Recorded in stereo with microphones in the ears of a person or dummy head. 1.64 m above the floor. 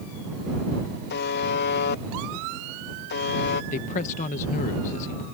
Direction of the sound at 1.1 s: 50° left (ahead or behind).